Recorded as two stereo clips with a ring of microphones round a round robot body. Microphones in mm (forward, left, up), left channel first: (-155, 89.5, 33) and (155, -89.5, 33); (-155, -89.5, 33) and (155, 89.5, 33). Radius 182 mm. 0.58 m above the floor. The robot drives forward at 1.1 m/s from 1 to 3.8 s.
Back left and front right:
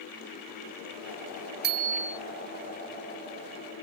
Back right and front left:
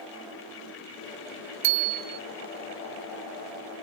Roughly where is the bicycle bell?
Ahead left.